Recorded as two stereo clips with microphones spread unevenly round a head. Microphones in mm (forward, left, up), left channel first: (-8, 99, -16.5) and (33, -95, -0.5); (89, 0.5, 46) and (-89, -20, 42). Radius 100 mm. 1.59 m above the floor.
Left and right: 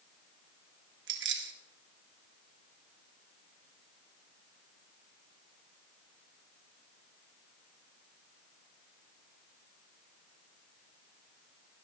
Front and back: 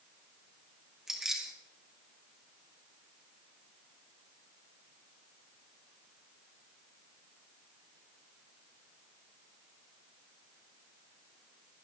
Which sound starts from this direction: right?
Keys jangling, at 1.1 s.